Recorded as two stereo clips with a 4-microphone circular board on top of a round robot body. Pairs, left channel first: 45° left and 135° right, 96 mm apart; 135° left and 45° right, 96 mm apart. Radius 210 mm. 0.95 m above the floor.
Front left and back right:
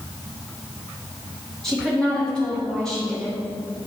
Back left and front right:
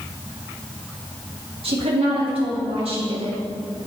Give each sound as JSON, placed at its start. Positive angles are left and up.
{"t": 1.6, "sound": "a woman speaking", "azimuth_deg": -40, "distance_m": 1.8}